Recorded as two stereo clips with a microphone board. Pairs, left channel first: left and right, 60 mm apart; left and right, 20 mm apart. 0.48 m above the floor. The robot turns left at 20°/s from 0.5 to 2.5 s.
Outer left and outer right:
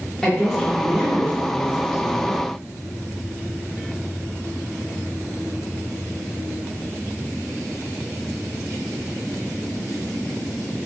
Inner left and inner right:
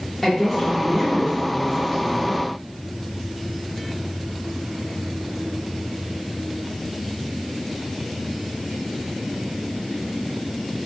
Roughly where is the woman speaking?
Centre.